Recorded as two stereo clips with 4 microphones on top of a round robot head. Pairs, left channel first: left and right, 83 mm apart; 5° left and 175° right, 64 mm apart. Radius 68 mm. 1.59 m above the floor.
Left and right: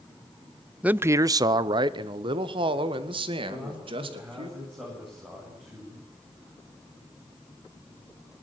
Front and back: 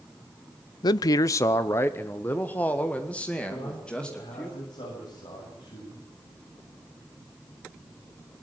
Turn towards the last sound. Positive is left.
turn(degrees=-20)